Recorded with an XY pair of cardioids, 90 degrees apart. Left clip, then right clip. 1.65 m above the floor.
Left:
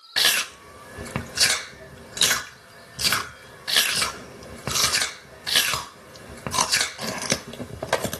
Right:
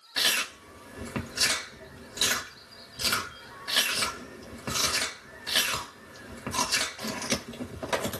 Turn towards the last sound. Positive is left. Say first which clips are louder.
# left 5 dB
turn(degrees=60)